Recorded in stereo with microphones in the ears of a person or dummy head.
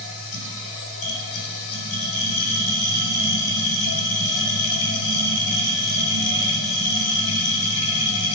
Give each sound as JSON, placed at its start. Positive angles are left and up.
{"t": 0.0, "sound": "a machine running", "side_deg": 65, "distance_m": 4.5}